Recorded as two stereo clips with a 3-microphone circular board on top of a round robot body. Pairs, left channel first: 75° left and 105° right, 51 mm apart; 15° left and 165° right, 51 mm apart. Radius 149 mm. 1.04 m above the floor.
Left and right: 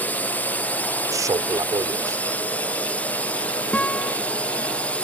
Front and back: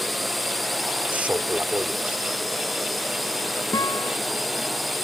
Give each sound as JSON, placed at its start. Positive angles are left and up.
{"t": 0.0, "sound": "a drone", "azimuth_deg": 105}
{"t": 1.1, "sound": "a man speaking", "azimuth_deg": -100}
{"t": 3.7, "sound": "a guitar", "azimuth_deg": 5}